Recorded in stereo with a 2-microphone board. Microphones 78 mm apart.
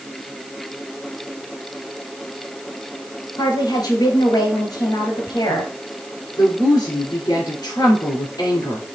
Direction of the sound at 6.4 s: 50° left (ahead or behind).